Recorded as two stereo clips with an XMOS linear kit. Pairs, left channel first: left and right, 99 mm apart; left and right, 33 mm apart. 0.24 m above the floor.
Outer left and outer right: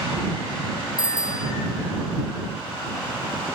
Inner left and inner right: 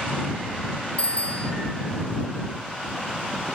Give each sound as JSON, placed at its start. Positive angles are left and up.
{"t": 1.0, "sound": "a bicycle bell", "side_deg": 40}